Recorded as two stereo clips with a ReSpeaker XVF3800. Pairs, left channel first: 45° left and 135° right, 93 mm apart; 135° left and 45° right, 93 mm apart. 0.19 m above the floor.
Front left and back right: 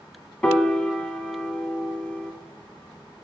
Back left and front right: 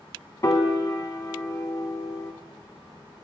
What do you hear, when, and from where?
0.4 s a piano: 115° left, 0.7 m